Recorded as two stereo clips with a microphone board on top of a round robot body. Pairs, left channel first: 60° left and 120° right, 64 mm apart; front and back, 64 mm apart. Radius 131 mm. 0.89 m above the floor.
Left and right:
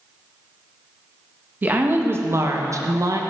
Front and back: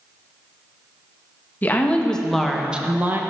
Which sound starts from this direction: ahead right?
A woman speaking, at 1.6 s.